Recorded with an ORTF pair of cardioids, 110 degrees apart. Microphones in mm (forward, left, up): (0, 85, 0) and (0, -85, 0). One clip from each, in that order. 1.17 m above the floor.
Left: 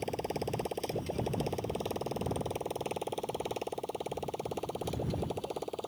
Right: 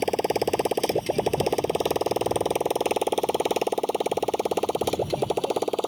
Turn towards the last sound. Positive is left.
turn(degrees=-65)